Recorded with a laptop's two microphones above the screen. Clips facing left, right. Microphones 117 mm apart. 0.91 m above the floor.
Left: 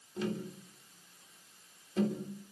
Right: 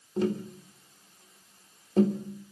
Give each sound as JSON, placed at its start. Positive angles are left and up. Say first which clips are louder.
{"t": 0.2, "sound": "tapping", "louder": "right 8 dB", "side_deg": -45, "distance_m": 3.0}